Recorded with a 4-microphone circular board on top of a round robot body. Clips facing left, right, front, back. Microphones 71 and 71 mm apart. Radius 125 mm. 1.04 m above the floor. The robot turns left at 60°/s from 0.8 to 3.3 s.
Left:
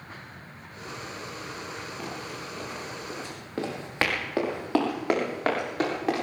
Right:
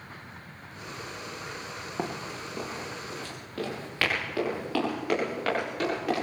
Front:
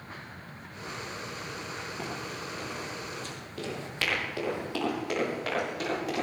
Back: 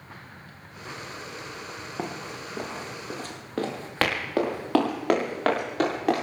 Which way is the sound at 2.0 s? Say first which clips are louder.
Right 2 dB, back 6 dB; 125° right.